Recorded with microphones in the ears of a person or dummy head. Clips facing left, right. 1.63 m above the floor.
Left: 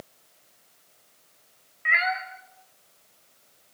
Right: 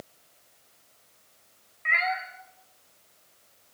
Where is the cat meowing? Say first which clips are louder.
Left 1 dB; 10° left (ahead or behind), 2 m.